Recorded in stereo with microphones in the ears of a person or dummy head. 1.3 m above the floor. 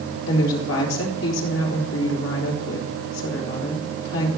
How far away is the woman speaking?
About 2.5 m.